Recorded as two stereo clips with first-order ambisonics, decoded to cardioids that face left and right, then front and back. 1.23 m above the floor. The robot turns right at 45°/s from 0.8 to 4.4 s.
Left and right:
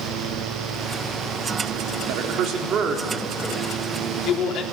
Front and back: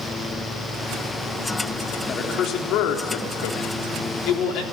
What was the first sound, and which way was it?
A man speaking, 65° right.